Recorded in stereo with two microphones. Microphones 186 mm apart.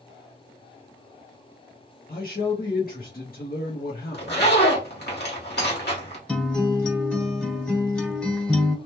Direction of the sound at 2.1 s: 55° left (ahead or behind).